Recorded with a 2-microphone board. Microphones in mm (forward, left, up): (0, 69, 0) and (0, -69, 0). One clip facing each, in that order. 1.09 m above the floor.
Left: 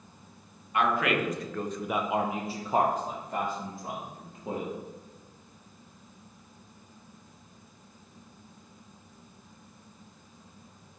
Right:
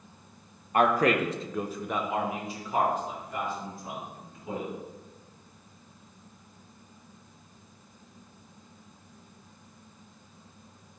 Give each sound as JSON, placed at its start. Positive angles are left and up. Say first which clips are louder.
{"t": 0.7, "sound": "a man speaking", "louder": "right 4 dB", "side_deg": -45, "distance_m": 1.0}